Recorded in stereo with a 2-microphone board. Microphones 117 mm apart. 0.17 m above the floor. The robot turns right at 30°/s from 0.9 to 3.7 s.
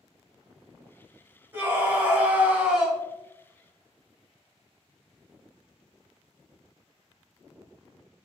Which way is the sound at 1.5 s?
15° right (ahead or behind).